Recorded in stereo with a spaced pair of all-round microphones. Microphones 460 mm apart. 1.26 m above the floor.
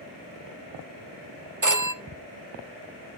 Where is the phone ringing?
40° right (ahead or behind), 0.7 m.